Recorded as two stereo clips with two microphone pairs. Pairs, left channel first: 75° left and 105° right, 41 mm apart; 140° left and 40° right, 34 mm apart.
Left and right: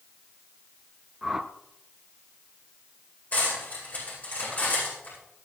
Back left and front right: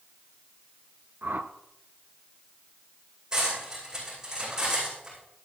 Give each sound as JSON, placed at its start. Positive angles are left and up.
{"t": 1.2, "sound": "a whoosh", "azimuth_deg": -20, "distance_m": 0.8}
{"t": 3.3, "sound": "cutlery clinking", "azimuth_deg": 30, "distance_m": 9.0}